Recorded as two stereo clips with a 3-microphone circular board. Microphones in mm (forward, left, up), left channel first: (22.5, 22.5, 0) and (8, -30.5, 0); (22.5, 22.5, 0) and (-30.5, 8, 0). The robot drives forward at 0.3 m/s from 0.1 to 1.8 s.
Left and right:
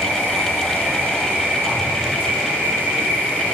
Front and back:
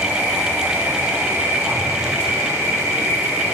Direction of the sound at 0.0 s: 165° right.